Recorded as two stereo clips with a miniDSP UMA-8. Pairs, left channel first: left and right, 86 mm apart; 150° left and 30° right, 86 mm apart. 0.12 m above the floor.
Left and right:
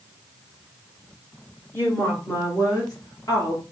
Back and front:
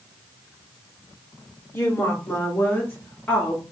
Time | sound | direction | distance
1.7 | a woman speaking | 125° left | 2.0 m